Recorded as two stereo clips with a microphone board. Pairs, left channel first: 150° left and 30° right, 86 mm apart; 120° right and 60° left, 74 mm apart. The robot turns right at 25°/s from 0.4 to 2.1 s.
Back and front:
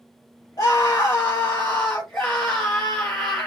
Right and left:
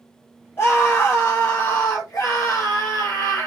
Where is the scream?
170° right, 1.3 m; by 3.5 s 135° right, 1.3 m.